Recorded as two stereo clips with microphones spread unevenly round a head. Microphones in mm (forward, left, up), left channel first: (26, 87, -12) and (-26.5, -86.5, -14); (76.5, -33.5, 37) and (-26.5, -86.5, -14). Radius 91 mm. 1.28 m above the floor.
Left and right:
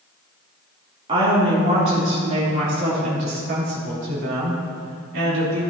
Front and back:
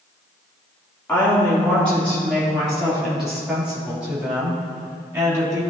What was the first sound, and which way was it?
A woman speaking, 45° right.